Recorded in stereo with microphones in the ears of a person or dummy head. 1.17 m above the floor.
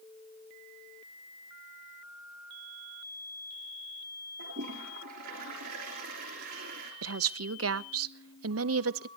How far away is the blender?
I don't hear a blender.